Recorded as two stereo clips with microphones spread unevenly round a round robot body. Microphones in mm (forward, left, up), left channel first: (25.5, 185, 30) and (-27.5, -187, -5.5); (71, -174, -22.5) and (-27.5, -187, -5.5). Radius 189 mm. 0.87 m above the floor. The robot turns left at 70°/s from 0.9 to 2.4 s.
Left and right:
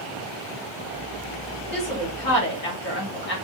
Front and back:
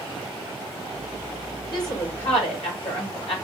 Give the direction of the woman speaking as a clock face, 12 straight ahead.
10 o'clock.